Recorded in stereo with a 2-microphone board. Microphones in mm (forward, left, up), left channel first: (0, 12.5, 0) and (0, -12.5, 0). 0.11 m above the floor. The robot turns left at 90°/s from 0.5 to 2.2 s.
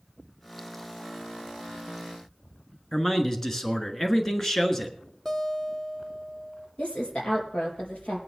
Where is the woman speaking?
50° left (ahead or behind), 4 m.